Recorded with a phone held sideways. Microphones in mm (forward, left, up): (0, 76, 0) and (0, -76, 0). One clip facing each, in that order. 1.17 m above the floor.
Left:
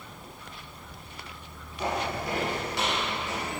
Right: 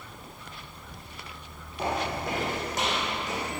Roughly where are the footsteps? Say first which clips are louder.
Right 1 dB; right.